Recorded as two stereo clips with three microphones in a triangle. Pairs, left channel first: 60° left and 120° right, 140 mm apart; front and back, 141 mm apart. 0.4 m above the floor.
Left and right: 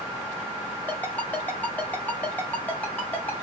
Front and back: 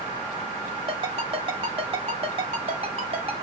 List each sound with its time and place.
0.9 s a ringtone: 135° left, 1.5 m